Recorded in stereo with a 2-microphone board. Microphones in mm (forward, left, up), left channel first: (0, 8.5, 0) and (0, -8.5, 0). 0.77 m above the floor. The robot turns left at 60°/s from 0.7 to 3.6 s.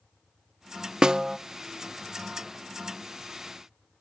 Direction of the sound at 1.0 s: 50° right (ahead or behind).